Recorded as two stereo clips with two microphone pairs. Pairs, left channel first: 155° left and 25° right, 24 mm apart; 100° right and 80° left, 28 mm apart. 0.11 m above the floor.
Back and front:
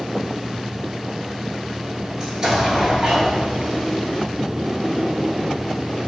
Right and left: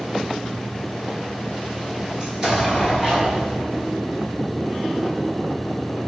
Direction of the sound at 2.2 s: 25° left.